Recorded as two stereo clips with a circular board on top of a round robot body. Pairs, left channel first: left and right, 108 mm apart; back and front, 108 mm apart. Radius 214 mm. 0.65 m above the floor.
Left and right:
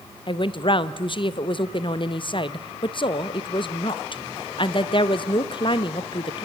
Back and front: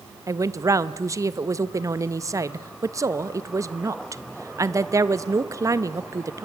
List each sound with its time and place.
0.3 s a woman speaking: 55° left, 0.9 m